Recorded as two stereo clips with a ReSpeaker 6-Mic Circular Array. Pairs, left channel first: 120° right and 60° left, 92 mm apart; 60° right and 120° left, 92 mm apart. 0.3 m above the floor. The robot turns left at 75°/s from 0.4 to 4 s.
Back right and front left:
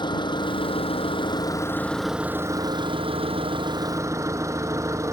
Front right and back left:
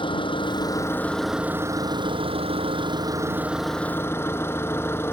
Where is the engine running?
85° right; by 5.1 s 5° left.